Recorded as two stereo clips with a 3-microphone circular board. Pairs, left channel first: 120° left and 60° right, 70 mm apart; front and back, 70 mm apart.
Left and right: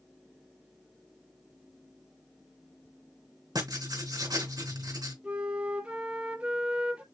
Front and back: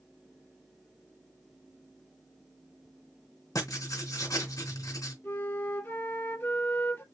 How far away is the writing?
About 3.5 m.